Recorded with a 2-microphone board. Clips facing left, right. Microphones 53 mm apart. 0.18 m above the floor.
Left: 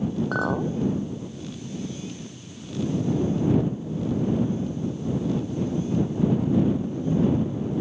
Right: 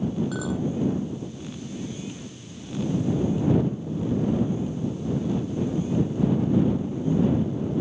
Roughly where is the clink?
Left.